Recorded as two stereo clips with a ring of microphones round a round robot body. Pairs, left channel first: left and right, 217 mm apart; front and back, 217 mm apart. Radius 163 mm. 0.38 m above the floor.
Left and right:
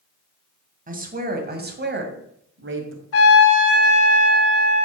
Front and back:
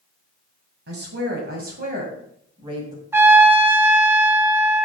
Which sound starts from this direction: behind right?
A woman speaking, at 0.9 s.